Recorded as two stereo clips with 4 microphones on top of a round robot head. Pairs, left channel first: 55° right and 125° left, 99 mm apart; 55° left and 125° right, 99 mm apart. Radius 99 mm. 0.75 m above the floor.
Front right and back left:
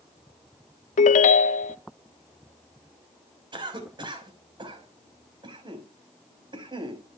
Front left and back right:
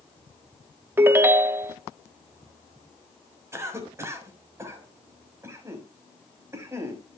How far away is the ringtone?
About 0.5 m.